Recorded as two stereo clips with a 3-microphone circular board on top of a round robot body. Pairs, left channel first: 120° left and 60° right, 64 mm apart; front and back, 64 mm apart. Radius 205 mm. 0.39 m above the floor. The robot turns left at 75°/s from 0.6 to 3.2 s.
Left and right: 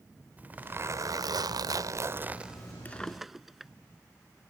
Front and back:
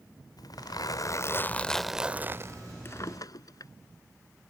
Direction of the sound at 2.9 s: 55° left.